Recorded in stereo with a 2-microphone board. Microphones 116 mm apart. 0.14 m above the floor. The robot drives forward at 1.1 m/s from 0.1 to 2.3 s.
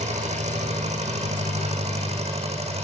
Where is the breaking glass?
I don't hear breaking glass.